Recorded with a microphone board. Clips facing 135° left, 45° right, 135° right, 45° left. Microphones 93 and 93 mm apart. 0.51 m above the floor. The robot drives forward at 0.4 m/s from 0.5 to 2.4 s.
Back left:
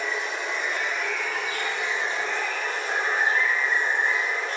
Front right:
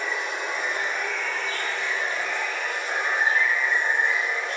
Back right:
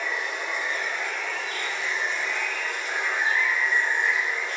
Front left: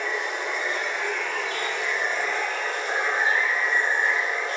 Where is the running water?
35° left, 1.0 m; by 4.6 s 90° left, 0.7 m.